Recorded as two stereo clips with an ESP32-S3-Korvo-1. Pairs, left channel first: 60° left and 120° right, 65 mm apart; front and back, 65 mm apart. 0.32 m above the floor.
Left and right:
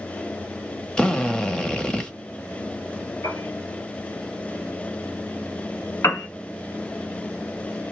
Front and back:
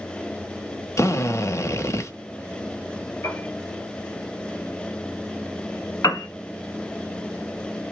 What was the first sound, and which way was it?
A drill, 10° right.